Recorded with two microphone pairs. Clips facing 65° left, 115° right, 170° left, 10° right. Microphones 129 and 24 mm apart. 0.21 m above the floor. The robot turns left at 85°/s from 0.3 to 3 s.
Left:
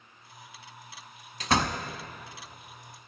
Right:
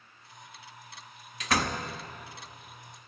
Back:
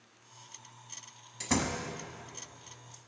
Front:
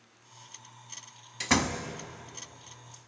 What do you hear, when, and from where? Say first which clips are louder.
1.4 s a door slam: left 2 dB, front 5 dB; 30° left, 0.9 m; by 1.8 s 5° right, 0.9 m